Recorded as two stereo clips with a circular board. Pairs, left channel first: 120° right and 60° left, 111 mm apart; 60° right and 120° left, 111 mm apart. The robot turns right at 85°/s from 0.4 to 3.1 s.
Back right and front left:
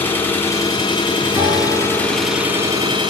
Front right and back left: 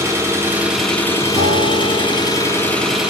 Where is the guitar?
115° left, 3 m; by 3.0 s 100° right, 3 m.